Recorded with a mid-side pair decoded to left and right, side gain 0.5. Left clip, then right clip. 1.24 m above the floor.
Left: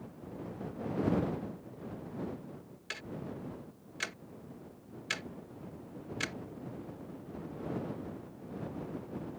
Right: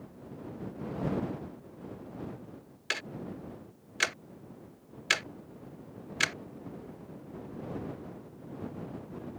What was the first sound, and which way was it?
Ticking, 55° right.